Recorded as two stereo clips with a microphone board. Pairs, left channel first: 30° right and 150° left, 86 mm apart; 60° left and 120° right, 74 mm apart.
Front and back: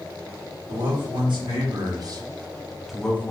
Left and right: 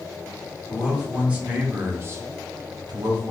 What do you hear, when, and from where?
0.7 s a man speaking: 160° left, 1.4 m; by 3.3 s 95° right, 0.6 m